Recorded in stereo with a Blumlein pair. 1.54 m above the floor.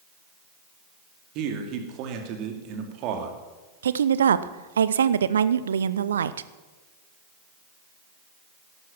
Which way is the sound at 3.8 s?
65° right.